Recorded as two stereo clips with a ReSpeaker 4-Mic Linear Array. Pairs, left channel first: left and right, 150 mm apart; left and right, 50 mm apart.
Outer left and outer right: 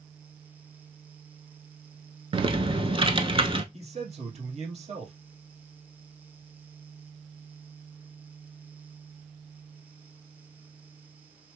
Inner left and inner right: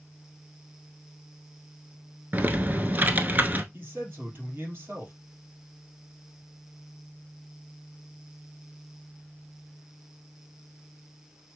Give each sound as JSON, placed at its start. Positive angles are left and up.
{"t": 2.3, "sound": "typing on a keyboard", "side_deg": -35, "distance_m": 0.7}
{"t": 3.7, "sound": "a man speaking", "side_deg": -45, "distance_m": 2.5}